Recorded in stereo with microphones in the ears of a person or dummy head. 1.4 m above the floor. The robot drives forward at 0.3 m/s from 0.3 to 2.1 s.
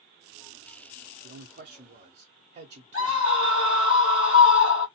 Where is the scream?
40° left (ahead or behind), 1.6 m.